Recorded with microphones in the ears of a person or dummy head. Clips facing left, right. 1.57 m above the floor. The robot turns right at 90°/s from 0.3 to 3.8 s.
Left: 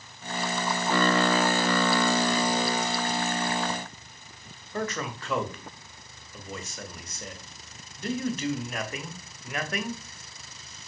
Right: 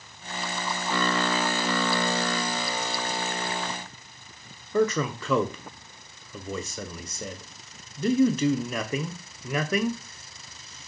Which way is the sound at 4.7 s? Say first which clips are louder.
Right 8 dB; 65° right (ahead or behind).